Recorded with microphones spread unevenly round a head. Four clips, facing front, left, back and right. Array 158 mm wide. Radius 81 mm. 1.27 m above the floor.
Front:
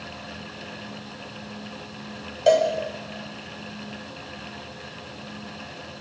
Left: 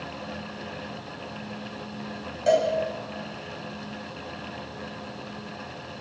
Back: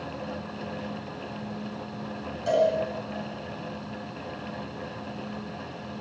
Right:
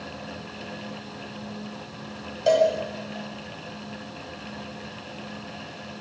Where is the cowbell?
15° right, 6.5 m.